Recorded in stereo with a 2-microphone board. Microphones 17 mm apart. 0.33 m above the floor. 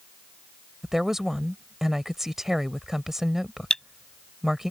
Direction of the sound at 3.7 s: 40° left (ahead or behind).